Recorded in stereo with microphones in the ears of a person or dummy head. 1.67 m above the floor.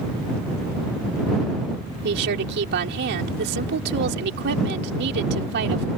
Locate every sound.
2.0 s a woman speaking: 70° right (ahead or behind)